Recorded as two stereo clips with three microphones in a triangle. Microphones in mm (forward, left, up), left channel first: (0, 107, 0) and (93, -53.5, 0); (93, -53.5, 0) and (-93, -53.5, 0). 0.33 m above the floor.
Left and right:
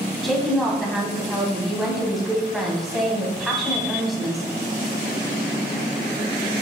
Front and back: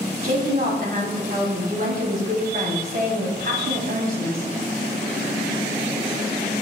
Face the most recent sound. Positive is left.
turn(degrees=-150)